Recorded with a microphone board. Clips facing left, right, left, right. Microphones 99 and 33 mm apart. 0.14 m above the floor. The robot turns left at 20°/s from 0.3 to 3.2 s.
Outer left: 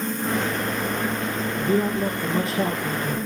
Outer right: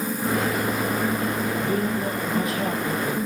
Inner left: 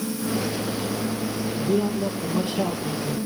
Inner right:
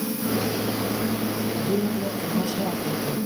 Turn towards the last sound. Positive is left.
turn(degrees=135)